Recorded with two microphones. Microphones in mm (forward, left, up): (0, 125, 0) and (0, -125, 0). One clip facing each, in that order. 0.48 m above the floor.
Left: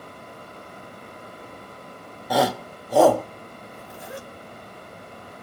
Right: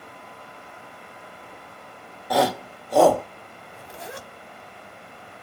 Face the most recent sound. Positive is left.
turn(degrees=-75)  # may be behind; listen again after turning